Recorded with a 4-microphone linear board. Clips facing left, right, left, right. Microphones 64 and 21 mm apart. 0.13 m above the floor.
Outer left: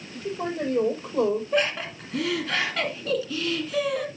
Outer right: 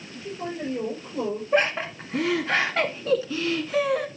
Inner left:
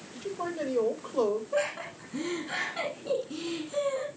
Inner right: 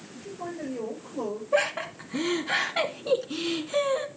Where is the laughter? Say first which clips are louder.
Outer right 2 dB, inner right 5 dB; 30° right (ahead or behind), 1.7 m.